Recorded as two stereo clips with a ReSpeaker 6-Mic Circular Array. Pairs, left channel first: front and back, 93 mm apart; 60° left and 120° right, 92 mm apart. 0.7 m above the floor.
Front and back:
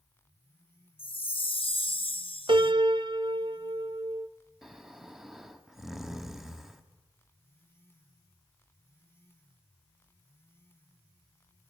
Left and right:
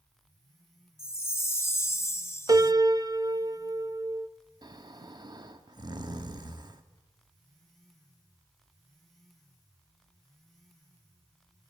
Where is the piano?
165° right, 0.8 m.